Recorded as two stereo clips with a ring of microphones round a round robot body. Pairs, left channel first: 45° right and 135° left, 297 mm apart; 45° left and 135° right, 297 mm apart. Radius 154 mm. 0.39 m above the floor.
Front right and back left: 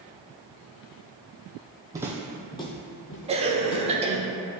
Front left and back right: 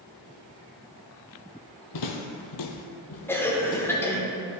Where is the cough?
115° left, 1.0 m.